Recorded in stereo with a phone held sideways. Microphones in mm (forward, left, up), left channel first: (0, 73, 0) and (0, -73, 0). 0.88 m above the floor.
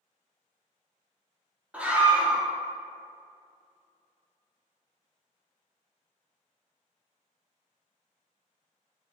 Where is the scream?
10° right (ahead or behind), 1.6 m.